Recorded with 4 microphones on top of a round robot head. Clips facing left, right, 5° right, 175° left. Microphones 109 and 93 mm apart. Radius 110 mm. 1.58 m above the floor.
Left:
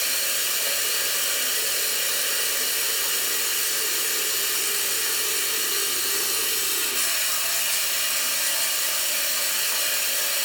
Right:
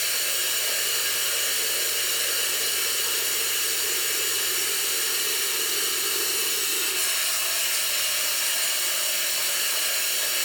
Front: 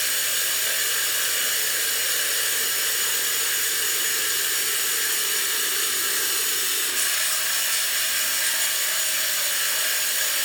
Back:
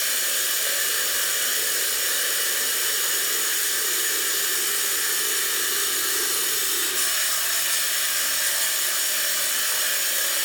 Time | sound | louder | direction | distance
0.0 | running water | left 1 dB, even | 110° left | 0.7 m